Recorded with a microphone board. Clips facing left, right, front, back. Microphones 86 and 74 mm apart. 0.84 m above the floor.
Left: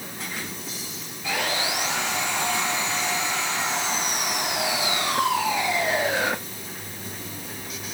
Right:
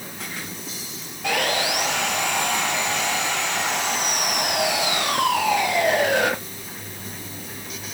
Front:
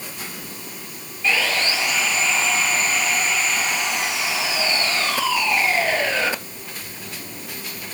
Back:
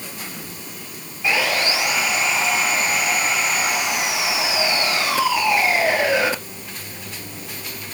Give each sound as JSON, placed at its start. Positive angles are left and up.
{"t": 1.2, "sound": "sawing", "azimuth_deg": -105, "distance_m": 3.5}